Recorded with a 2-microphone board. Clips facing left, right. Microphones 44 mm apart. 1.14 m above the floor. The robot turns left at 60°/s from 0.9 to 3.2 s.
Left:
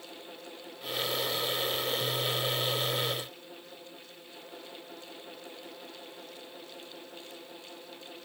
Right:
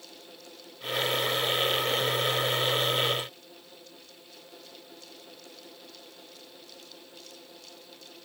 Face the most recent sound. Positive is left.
No sound to turn to.